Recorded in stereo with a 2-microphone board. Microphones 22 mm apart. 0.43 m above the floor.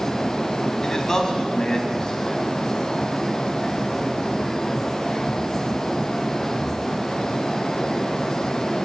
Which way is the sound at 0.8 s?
25° left (ahead or behind).